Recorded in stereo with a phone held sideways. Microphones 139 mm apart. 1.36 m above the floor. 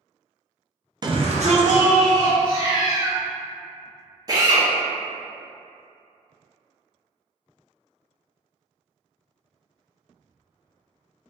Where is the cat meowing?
35° left (ahead or behind), 0.8 m.